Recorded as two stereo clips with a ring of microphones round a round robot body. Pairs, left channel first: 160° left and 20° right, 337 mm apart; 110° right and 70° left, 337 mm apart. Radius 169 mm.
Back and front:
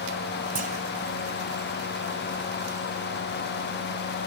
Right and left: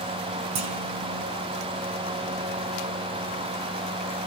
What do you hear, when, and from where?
0.6 s a clunk: 45° left, 2.5 m